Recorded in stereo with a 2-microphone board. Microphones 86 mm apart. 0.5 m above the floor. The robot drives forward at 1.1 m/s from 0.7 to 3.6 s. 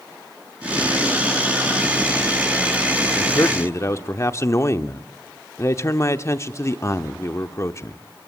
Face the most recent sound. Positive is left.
turn(degrees=35)  # may be behind; listen again after turning